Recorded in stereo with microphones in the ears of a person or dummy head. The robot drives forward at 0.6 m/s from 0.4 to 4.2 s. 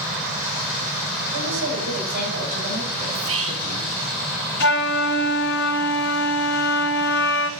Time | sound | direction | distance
1.3 | a woman speaking | 65° right (ahead or behind) | 5.5 m
3.1 | whispering | 65° right (ahead or behind) | 1.2 m
4.6 | a flute | 50° left (ahead or behind) | 1.3 m